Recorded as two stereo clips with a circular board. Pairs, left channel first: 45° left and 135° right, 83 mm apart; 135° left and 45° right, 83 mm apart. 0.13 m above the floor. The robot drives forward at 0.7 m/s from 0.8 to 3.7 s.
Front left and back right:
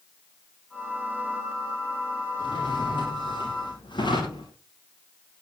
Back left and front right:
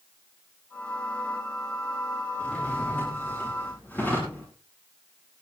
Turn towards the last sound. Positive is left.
turn(degrees=65)